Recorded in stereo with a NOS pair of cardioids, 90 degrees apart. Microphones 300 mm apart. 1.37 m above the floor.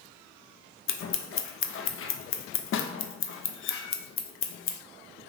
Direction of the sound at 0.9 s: 45° left.